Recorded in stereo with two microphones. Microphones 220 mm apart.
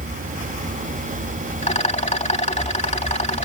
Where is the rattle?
30° left (ahead or behind).